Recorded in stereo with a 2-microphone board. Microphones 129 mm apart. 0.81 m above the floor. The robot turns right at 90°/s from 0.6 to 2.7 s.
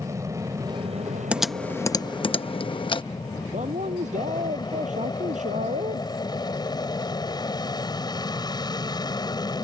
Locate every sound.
0.0 s an aircraft: 155° right; by 9.7 s 35° left
1.3 s typing on a keyboard: 10° right (ahead or behind); by 3.0 s 40° left (ahead or behind)
3.5 s a man speaking: 65° right (ahead or behind)